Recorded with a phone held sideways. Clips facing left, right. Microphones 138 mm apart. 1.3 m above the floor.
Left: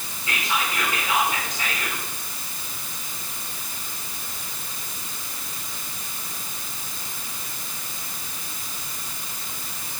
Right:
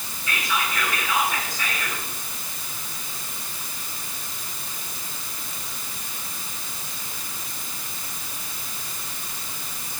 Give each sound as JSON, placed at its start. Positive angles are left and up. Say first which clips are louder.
{"t": 0.3, "sound": "whispering", "louder": "even", "side_deg": 25, "distance_m": 5.5}